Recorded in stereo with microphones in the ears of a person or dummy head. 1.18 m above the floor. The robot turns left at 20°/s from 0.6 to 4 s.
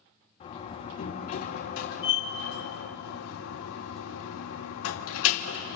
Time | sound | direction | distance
0.4 | a door slam | 145° left | 2.5 m